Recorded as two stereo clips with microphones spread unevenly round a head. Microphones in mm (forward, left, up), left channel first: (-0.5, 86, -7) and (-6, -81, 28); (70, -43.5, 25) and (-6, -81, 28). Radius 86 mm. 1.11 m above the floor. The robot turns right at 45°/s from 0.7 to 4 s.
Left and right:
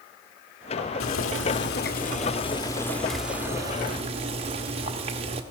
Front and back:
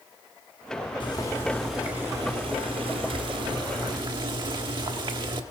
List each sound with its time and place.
1.0 s boiling: 85° left, 1.2 m; by 5.4 s 140° right, 1.2 m